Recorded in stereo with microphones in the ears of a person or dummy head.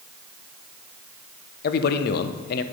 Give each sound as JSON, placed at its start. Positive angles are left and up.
{"t": 1.6, "sound": "a man speaking", "side_deg": 60, "distance_m": 0.7}